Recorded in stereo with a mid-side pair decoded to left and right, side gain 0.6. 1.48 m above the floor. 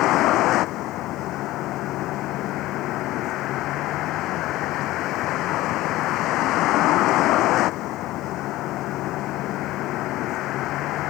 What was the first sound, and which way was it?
A vehicle, 65° left.